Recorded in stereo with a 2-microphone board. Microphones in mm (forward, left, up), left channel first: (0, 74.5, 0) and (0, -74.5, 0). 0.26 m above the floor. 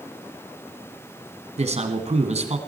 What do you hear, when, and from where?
1.6 s a man speaking: 45° right (ahead or behind), 2.5 m